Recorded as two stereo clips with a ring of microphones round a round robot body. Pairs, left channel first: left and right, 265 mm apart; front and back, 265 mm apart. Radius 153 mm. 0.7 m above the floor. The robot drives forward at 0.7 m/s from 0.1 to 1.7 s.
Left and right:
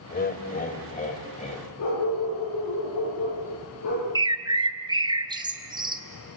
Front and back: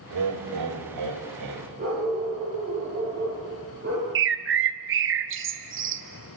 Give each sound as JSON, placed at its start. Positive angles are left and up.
{"t": 0.1, "sound": "laughter", "azimuth_deg": 145, "distance_m": 3.0}
{"t": 1.8, "sound": "a dog barking", "azimuth_deg": 115, "distance_m": 8.5}
{"t": 4.2, "sound": "a bird", "azimuth_deg": -160, "distance_m": 1.2}